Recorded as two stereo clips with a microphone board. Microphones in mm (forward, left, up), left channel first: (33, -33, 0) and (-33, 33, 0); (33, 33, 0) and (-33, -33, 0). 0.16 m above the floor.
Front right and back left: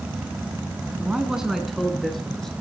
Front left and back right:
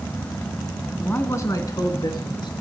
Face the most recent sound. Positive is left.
turn(degrees=40)